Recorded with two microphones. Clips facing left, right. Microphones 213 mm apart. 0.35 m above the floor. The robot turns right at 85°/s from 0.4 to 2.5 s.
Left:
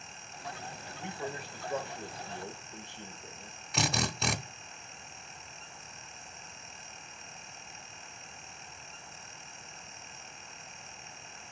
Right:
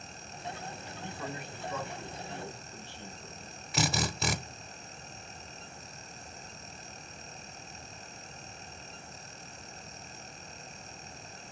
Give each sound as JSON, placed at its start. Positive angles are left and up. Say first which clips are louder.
{"t": 1.0, "sound": "a man speaking", "louder": "left 2 dB", "azimuth_deg": 25, "distance_m": 1.4}
{"t": 3.7, "sound": "a drill", "louder": "right 1 dB", "side_deg": 0, "distance_m": 0.8}